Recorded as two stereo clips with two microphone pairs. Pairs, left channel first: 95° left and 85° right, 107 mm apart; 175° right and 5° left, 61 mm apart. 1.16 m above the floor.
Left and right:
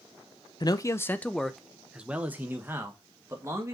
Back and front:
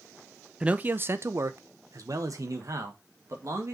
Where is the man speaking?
70° left, 0.6 m; by 3.7 s 20° right, 1.9 m.